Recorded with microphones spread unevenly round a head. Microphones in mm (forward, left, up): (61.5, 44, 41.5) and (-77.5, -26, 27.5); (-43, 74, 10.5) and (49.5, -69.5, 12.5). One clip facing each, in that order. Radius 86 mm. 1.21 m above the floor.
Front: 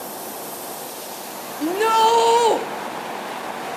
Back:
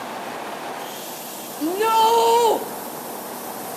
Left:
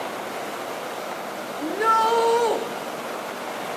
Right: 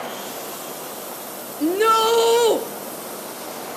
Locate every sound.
1.6 s a shout: 70° right, 0.7 m